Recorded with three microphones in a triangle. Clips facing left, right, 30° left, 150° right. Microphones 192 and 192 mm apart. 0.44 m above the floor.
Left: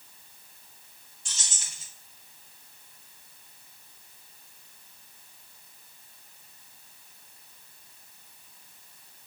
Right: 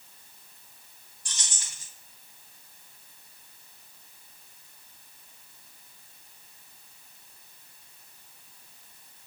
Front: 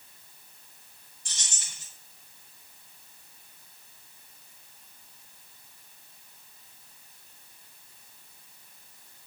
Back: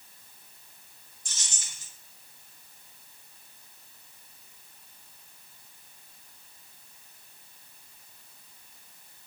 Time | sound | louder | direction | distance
1.2 | keys jangling | right 1 dB, front 1 dB | 25° left | 2 m